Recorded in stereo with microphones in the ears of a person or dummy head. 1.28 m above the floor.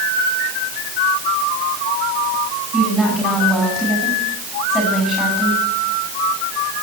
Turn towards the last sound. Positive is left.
turn(degrees=0)  # may be behind; listen again after turning